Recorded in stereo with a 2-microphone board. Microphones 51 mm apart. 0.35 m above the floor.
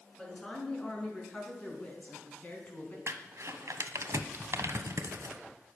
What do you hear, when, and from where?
0.2 s a woman speaking: 10° left (ahead or behind), 5.5 m; by 3.0 s 35° left (ahead or behind), 4 m
3.1 s crumpling: 75° right (ahead or behind), 1.1 m